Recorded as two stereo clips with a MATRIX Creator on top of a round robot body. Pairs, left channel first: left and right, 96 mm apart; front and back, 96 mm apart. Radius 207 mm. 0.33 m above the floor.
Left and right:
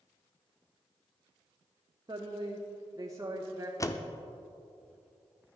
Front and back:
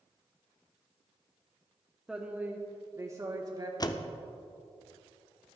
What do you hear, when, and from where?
2.1 s a woman speaking: 100° right, 1.3 m; by 3.7 s 145° right, 1.6 m
3.8 s a door slam: 40° left, 1.0 m